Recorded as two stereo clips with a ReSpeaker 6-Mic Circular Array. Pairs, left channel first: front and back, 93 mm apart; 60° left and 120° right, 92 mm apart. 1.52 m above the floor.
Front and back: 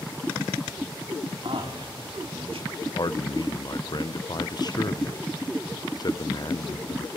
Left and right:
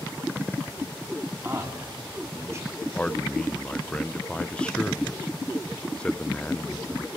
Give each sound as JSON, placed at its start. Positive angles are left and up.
{"t": 1.4, "sound": "a man speaking", "azimuth_deg": 180, "distance_m": 3.0}
{"t": 2.9, "sound": "a man speaking", "azimuth_deg": -15, "distance_m": 0.6}